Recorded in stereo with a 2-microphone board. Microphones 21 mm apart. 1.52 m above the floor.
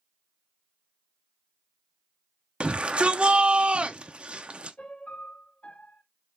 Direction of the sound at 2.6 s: 55° right (ahead or behind).